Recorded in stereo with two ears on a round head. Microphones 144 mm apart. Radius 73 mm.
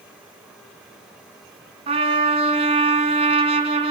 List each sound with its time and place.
1.9 s a trumpet: 35° right (ahead or behind), 1.8 m